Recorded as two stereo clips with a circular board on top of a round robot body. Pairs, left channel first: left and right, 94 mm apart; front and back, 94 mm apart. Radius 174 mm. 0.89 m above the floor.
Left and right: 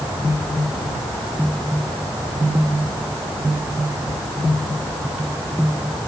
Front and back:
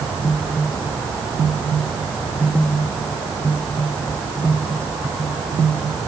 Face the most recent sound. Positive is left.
No sound to turn to.